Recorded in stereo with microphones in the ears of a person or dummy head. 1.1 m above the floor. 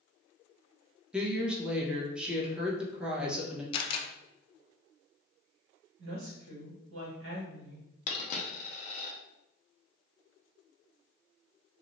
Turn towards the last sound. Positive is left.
turn(degrees=40)  # may be behind; listen again after turning